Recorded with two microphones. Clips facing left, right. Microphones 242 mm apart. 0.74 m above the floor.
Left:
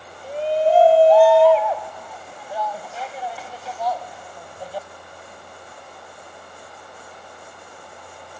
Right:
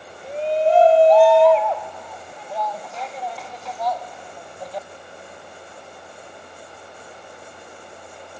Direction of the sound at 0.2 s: Centre (ahead or behind).